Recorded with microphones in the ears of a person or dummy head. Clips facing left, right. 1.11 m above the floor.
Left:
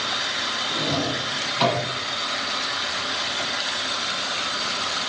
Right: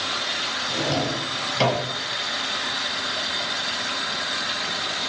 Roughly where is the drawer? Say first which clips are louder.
Right 1 dB; right.